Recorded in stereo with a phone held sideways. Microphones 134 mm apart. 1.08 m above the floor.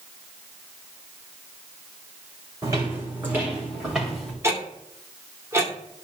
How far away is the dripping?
No dripping in this recording.